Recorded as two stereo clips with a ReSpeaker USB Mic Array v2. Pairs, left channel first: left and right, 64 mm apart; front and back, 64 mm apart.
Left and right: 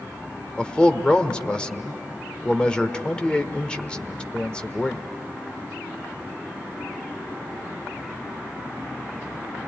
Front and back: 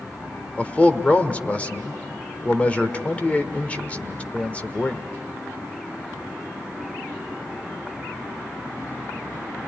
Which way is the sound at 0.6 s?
35° left.